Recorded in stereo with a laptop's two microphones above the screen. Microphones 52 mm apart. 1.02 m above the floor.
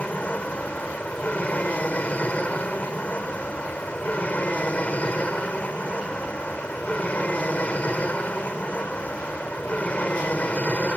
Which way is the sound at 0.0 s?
25° left (ahead or behind).